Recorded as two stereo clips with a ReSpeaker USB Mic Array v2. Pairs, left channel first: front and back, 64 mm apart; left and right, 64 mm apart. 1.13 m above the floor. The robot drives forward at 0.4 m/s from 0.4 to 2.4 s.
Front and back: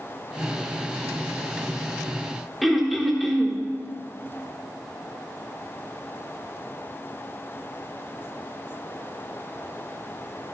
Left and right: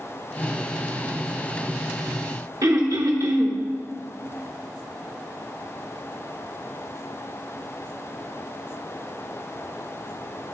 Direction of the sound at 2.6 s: 90° right.